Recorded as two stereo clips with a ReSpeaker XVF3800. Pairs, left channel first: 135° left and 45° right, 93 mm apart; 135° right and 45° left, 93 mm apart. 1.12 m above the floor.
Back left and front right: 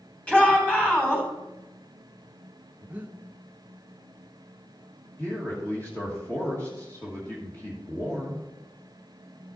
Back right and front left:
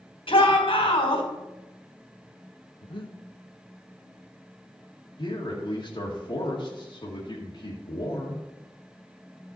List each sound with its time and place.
0.3 s a shout: 150° right, 3.5 m
2.8 s breathing: 115° right, 0.8 m
5.2 s a man speaking: 160° right, 1.6 m